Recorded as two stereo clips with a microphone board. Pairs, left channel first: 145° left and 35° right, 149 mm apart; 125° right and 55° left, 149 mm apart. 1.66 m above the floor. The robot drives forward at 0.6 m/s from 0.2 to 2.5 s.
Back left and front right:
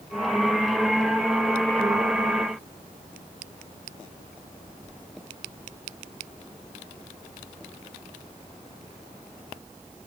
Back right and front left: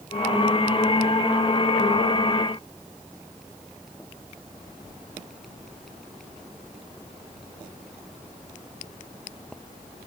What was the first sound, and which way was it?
Only background noise.